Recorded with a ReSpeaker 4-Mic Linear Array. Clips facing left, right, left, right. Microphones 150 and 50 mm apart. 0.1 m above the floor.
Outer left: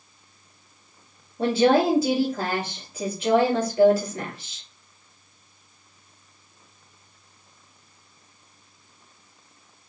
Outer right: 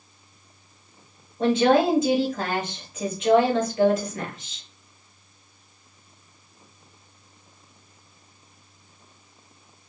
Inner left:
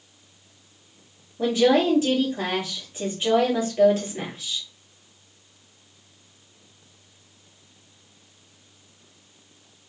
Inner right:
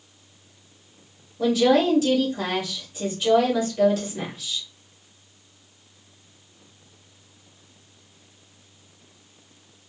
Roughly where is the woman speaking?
Left.